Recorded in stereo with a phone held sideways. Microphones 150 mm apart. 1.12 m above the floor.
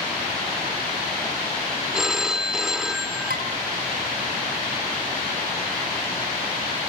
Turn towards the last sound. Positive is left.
turn(degrees=-75)  # may be behind; listen again after turning